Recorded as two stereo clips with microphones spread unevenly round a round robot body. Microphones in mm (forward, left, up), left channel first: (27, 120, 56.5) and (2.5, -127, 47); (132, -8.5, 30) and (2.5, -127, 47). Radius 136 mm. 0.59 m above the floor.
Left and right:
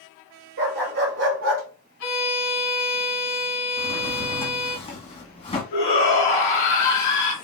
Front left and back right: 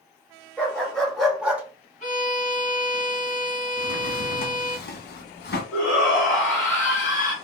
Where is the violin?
110° left, 1.4 m.